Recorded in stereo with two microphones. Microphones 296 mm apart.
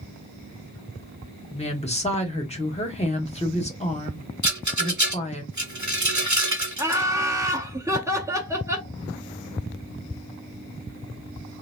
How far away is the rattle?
About 1.0 m.